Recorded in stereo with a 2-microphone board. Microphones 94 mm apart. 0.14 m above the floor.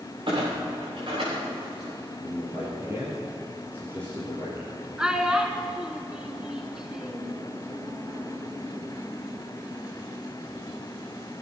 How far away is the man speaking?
About 4 m.